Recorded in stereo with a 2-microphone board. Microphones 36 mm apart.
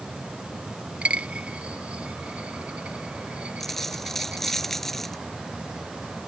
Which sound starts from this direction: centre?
A dropped coin, at 3.6 s.